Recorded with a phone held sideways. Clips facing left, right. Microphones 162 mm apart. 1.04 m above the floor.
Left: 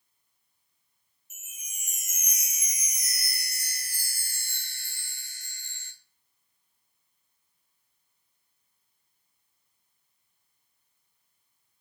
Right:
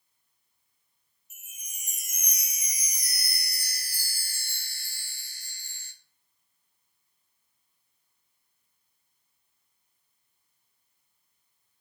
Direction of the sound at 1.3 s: 35° right (ahead or behind).